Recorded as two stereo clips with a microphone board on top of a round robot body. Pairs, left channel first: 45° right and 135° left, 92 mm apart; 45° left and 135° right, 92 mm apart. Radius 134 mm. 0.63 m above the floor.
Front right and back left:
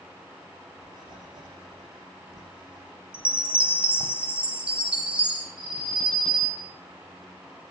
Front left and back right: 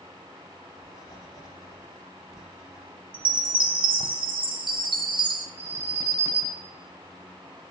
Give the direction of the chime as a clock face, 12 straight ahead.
5 o'clock.